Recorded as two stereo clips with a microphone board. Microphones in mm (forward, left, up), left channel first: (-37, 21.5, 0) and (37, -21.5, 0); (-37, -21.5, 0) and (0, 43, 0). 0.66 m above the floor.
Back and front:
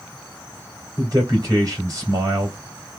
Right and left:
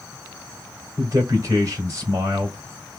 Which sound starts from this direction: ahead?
A man speaking, at 1.0 s.